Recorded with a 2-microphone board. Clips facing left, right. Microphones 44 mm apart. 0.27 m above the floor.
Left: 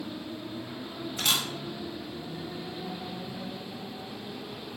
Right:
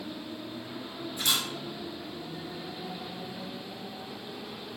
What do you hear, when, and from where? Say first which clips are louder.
1.2 s a camera shutter: left 1 dB; 80° left, 1.1 m